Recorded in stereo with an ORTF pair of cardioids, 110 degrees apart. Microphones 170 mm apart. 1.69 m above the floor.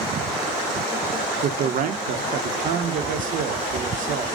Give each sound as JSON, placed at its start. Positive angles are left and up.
{"t": 1.4, "sound": "a man speaking", "azimuth_deg": -50, "distance_m": 0.9}